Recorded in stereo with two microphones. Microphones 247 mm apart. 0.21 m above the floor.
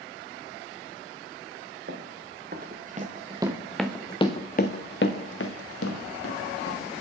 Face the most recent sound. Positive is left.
turn(degrees=75)  # may be behind; listen again after turning